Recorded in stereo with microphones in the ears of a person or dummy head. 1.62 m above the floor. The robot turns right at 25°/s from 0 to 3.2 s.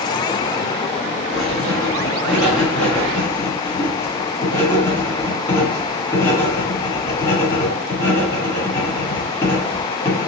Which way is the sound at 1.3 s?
30° right (ahead or behind).